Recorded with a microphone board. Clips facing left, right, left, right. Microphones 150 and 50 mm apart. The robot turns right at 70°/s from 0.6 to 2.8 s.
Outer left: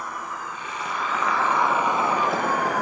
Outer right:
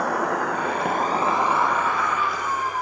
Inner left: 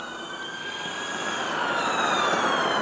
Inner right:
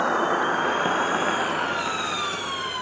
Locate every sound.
0.0 s an insect: 75° right, 1.0 m; by 2.8 s 80° left, 1.0 m